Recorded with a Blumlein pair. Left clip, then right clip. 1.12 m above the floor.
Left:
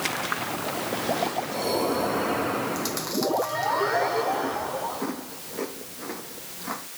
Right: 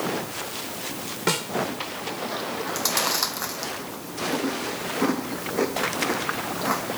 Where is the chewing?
70° right.